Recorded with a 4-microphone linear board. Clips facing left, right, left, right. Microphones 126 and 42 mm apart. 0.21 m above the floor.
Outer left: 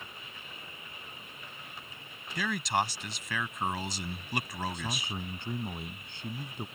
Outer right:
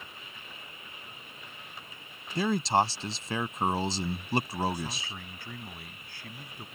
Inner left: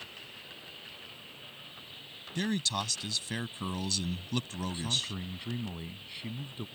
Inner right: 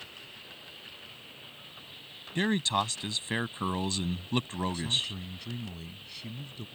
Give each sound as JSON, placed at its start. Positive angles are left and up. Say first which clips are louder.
{"t": 2.4, "sound": "a man speaking", "louder": "outer right 5 dB, inner right 5 dB", "side_deg": -30}
{"t": 4.7, "sound": "a man speaking", "louder": "outer left 1 dB, inner right 2 dB", "side_deg": 25}